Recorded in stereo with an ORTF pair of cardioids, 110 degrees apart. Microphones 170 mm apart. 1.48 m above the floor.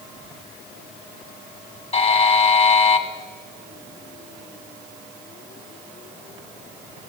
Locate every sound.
1.9 s a buzzer: 35° left, 1.5 m